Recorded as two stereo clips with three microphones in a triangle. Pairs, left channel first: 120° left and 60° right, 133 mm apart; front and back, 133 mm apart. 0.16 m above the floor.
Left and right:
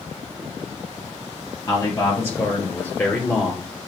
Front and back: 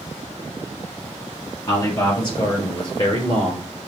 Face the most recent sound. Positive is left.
turn(degrees=35)